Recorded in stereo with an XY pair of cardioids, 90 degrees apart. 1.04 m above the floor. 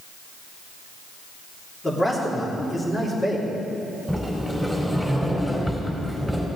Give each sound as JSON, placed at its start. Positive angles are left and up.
{"t": 1.8, "sound": "a man speaking", "azimuth_deg": 30, "distance_m": 3.0}
{"t": 4.1, "sound": "a sliding door", "azimuth_deg": 5, "distance_m": 4.0}